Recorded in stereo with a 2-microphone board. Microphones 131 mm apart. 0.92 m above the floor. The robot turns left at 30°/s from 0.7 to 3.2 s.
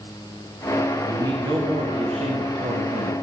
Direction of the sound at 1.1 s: 30° right.